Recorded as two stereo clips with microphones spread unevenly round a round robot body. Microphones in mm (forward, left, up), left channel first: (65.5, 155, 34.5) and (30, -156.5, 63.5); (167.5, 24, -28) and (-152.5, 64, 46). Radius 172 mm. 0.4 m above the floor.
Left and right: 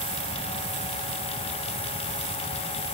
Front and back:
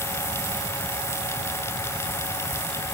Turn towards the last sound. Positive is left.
No sound to turn to.